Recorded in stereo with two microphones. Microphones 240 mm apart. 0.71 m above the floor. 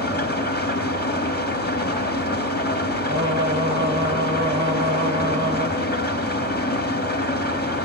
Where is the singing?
50° right (ahead or behind), 3 m.